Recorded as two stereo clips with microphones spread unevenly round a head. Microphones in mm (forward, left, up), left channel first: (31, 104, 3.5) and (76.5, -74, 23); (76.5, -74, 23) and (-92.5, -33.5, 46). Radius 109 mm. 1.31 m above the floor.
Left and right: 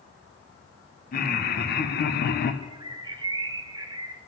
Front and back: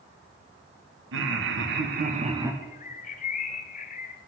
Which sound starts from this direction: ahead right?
A bird, at 2.6 s.